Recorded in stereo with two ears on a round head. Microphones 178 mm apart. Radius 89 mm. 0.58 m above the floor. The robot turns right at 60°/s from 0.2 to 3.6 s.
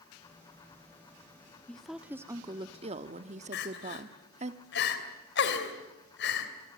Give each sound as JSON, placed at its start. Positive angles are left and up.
{"t": 1.7, "sound": "a woman speaking", "azimuth_deg": 170, "distance_m": 1.1}
{"t": 3.5, "sound": "crying", "side_deg": 55, "distance_m": 3.0}